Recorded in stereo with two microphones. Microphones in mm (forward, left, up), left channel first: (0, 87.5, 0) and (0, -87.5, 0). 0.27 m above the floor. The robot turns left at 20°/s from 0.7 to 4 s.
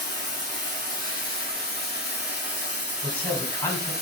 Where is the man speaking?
5° left (ahead or behind), 1.7 m; by 3.9 s 20° left (ahead or behind), 1.7 m.